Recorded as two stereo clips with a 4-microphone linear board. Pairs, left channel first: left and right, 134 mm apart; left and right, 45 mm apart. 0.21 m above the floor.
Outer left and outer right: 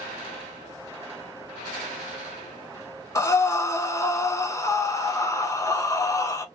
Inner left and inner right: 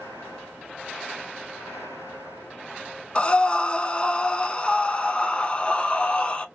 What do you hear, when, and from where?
3.1 s breathing: 25° left (ahead or behind), 0.5 m